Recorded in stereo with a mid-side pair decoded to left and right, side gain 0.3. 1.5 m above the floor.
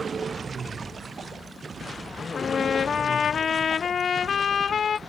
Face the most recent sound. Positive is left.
turn(degrees=70)